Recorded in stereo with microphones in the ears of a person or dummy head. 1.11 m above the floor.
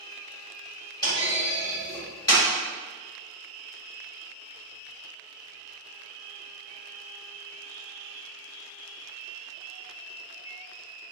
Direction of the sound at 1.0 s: 25° left (ahead or behind).